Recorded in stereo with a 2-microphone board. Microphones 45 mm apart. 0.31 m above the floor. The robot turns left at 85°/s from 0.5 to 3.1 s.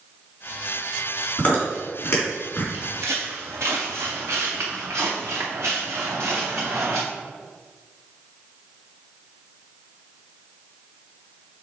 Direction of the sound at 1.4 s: 25° left (ahead or behind).